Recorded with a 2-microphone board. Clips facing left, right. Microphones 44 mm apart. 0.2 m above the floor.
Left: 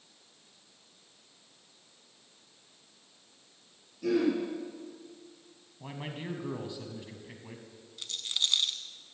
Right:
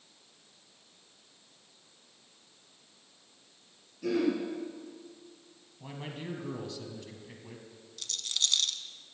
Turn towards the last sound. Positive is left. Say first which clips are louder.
# left 1 dB
turn(degrees=20)  # may be behind; listen again after turning